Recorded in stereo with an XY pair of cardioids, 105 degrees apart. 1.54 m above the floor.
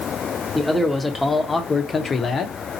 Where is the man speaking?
Straight ahead, 1.4 m; by 2.6 s 55° left, 0.9 m.